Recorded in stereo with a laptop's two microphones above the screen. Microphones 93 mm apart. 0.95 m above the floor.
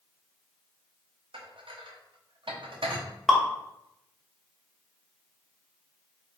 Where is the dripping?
5° left (ahead or behind), 0.8 m.